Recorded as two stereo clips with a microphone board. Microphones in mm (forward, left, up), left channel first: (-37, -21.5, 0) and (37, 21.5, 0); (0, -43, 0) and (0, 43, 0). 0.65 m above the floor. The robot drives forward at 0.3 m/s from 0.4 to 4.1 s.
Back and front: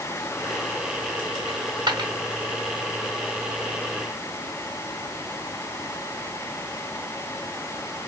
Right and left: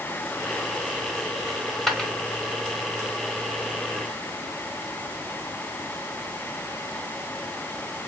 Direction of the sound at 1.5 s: 5° right.